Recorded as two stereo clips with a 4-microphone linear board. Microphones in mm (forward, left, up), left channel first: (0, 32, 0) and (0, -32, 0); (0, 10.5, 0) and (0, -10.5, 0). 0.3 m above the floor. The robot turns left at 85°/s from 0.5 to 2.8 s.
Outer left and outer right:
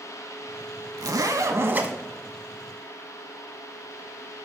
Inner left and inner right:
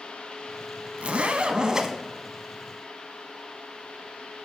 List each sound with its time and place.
1.0 s a zipper: 85° right, 0.5 m; by 1.9 s 160° right, 0.5 m